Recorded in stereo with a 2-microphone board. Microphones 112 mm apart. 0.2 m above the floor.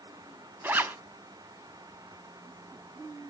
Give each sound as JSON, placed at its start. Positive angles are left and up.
{"t": 0.6, "sound": "a zipper", "side_deg": -20, "distance_m": 0.5}